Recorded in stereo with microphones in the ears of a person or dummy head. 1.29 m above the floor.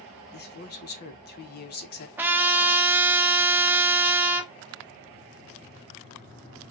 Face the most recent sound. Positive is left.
turn(degrees=-10)  # may be behind; listen again after turning